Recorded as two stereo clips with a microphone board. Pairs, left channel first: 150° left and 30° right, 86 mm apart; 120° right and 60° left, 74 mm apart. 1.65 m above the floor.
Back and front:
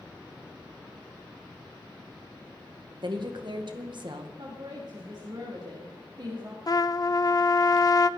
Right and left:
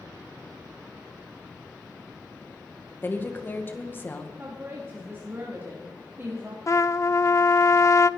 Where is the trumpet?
165° right, 0.5 m.